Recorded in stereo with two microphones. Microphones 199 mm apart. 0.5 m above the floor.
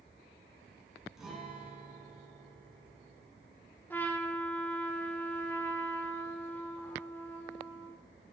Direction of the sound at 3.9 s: 10° left (ahead or behind).